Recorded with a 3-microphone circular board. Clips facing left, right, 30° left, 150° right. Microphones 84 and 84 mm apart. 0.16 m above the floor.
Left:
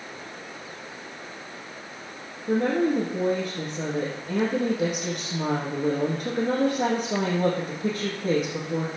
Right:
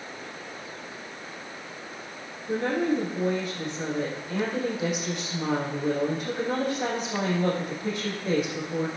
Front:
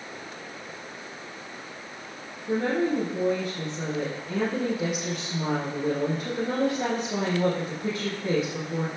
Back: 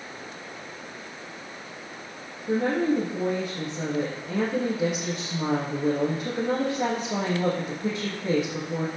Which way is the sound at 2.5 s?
135° left.